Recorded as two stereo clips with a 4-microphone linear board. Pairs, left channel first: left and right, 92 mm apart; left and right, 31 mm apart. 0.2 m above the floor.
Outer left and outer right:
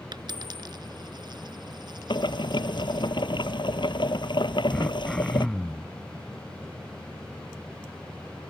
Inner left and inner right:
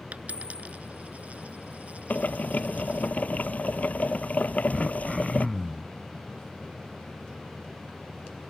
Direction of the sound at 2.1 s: 55° left (ahead or behind).